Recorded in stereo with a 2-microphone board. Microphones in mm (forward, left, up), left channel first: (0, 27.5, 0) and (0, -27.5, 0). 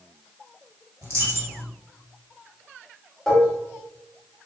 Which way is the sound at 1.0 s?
60° right (ahead or behind).